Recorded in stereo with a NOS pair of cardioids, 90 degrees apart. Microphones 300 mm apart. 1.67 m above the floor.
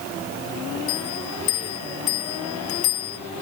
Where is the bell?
70° left, 3 m.